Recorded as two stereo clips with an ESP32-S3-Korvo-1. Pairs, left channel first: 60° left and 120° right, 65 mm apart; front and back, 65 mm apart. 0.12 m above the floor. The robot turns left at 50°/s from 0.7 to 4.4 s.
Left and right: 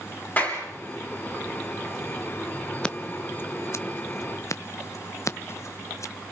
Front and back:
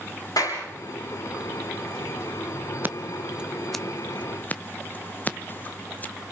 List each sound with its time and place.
0.4 s a clap: straight ahead, 7 m
2.8 s scissors: 135° left, 0.7 m; by 6.1 s 55° left, 0.7 m